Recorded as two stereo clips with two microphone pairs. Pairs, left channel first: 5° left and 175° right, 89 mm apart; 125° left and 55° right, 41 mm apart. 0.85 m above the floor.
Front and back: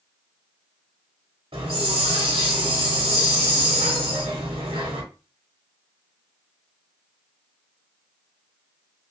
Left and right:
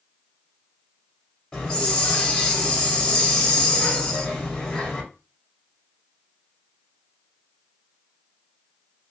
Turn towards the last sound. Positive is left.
turn(degrees=-165)